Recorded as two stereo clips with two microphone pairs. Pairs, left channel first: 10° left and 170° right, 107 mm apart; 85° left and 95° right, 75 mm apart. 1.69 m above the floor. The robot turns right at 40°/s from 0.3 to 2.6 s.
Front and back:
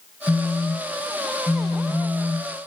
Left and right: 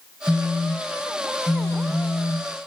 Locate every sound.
0.3 s a phone buzzing: 20° left, 0.7 m; by 2.5 s 105° left, 0.7 m